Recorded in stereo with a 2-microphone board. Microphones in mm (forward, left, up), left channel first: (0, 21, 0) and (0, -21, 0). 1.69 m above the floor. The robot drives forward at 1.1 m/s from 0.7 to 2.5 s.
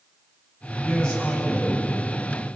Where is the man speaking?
15° left (ahead or behind), 9.5 m; by 1.9 s 20° left (ahead or behind), 8 m.